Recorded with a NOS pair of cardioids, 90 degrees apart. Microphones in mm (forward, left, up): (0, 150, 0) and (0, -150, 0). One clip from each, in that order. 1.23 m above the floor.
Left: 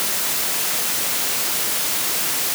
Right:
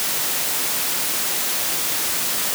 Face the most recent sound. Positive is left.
No sound to turn to.